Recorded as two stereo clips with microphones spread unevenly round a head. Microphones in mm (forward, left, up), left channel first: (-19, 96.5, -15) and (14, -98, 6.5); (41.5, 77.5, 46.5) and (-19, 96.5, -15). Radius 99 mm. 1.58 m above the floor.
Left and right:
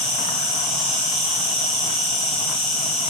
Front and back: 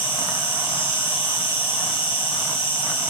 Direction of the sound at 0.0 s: 20° left.